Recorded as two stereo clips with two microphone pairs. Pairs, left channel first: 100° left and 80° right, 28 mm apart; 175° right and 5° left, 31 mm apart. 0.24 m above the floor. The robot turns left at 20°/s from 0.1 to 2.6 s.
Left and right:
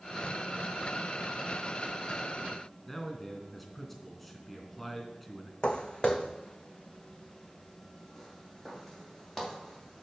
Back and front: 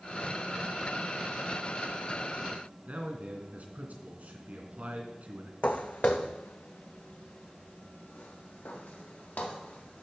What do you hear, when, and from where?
2.9 s a man speaking: 20° left, 2.5 m
5.6 s footsteps: 150° left, 0.7 m; by 10.0 s 175° right, 3 m